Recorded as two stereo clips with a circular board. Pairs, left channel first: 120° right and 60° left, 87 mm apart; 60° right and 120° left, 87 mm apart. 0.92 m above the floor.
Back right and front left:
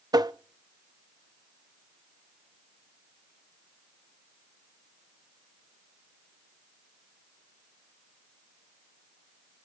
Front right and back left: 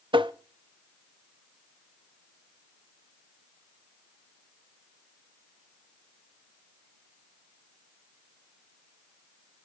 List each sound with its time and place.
0.1 s tapping: 100° left, 0.5 m